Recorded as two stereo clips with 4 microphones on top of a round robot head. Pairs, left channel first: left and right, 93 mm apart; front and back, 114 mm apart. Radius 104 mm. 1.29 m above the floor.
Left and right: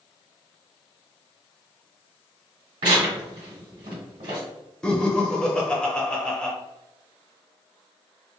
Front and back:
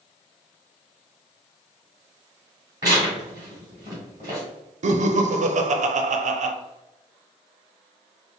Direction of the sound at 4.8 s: 175° left.